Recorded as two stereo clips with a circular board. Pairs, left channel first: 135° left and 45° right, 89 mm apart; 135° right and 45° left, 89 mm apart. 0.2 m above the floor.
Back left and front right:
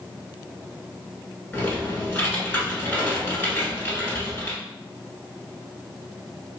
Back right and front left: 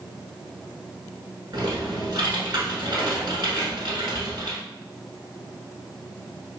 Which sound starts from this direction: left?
Typing on a keyboard, at 1.5 s.